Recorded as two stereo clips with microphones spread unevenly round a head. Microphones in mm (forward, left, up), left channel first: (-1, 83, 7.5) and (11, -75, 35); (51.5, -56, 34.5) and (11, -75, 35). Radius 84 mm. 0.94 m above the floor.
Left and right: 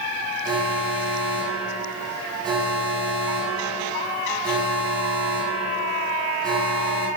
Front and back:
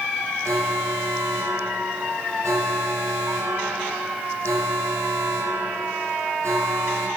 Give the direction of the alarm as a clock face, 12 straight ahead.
5 o'clock.